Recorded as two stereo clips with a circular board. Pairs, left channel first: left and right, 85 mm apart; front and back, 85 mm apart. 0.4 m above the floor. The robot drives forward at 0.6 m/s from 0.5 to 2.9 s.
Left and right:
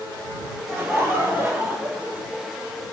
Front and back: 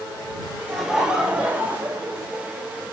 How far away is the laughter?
About 0.9 m.